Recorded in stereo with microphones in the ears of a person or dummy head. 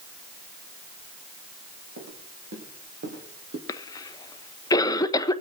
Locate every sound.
2.0 s footsteps: 70° right (ahead or behind), 3 m; by 3.6 s 55° right (ahead or behind), 3 m
3.7 s a cough: 25° left (ahead or behind), 0.7 m